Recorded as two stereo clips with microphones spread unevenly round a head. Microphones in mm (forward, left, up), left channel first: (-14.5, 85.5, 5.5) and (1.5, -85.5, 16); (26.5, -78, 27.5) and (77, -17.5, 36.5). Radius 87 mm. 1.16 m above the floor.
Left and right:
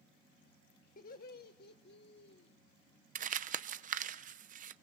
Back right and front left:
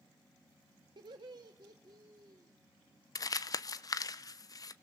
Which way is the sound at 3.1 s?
120° right.